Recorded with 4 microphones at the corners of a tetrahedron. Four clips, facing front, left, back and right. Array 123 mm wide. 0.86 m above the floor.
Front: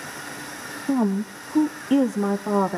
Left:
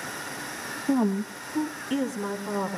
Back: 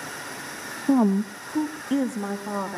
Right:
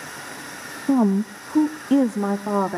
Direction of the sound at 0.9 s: 125° right.